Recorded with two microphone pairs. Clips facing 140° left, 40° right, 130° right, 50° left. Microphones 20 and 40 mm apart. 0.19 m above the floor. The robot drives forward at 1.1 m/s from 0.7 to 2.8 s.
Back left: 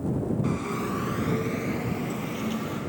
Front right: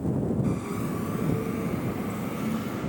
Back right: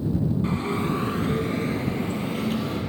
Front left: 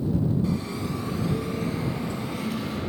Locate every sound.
0.4 s a bell: 160° right, 0.8 m; by 2.8 s 175° right, 3 m